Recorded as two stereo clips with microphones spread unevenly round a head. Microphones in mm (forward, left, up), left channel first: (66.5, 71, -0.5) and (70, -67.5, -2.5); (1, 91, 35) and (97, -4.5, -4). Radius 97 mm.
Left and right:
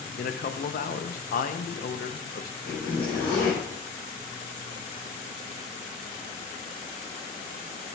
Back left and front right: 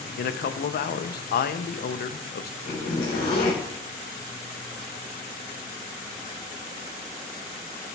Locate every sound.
0.2 s a man speaking: 120° left, 0.5 m
2.6 s a zipper: 140° left, 3.5 m